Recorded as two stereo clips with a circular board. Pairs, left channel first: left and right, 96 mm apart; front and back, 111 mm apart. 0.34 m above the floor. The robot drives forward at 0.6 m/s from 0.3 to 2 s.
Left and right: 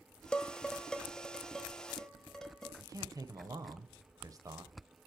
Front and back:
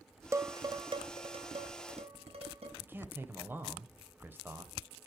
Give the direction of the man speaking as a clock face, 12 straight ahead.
4 o'clock.